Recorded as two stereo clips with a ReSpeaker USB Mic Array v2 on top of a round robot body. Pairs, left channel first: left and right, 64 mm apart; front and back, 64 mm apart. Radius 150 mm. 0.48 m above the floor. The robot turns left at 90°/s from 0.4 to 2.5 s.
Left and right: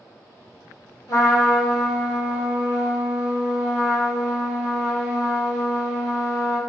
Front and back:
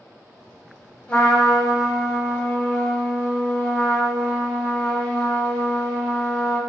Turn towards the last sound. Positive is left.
turn(degrees=-60)